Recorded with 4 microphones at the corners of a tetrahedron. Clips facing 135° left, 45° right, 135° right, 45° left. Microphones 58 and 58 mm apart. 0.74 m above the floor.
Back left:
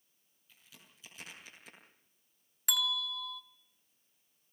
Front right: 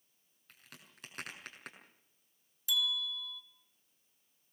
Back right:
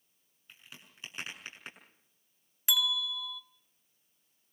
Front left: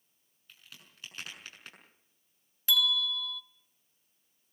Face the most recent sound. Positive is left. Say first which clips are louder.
# back left 1 dB, front left 3 dB
turn(degrees=150)